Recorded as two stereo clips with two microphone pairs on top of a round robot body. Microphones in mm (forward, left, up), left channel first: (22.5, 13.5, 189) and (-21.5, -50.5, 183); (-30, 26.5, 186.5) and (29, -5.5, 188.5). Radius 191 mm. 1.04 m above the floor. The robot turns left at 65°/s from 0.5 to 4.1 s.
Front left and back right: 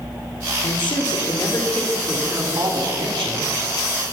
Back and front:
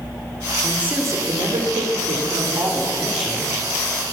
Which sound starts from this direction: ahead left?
A man speaking, at 0.6 s.